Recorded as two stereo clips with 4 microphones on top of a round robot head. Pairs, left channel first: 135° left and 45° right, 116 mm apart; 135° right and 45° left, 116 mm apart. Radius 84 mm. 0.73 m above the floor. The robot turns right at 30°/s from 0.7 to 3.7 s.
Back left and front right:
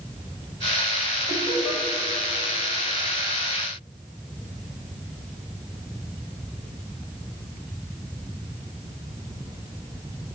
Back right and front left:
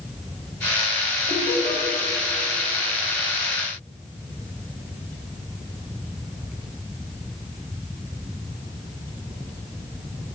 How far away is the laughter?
About 4.5 m.